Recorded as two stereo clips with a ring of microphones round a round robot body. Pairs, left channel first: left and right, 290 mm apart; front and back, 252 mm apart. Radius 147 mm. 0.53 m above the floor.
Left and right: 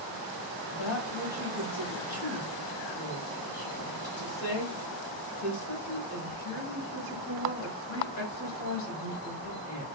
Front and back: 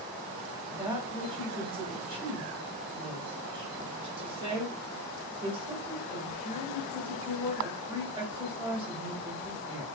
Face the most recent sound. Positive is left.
turn(degrees=105)